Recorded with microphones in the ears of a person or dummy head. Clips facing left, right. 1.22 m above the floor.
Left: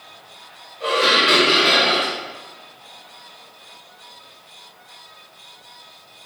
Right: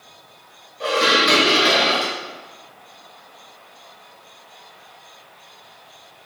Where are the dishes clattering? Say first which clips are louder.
Even; 65° right (ahead or behind), 1.2 m.